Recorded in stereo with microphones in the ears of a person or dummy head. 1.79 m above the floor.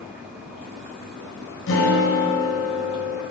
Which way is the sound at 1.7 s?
70° left (ahead or behind).